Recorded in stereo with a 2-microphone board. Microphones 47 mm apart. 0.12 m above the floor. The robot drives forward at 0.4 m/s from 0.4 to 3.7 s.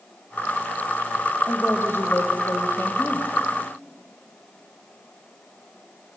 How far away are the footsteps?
No footsteps in this recording.